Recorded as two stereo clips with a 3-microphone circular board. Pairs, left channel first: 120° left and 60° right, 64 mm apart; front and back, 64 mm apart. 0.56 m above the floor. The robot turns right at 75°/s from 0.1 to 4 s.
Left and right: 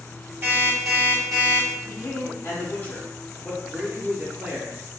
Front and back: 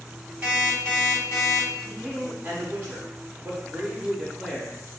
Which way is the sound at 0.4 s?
110° right.